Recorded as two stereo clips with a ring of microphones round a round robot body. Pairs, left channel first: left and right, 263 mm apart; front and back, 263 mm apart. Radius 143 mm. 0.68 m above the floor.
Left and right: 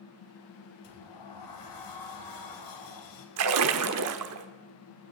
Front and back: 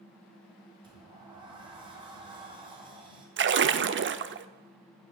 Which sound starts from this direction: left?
A sliding door, at 0.8 s.